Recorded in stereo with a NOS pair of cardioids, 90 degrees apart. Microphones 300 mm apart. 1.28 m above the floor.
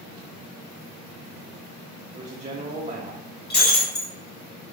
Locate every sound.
2.1 s a man speaking: 25° right, 0.6 m
3.5 s breaking glass: 35° left, 1.4 m